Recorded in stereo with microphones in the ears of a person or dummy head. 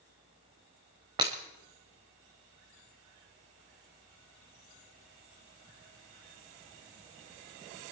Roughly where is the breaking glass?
Centre.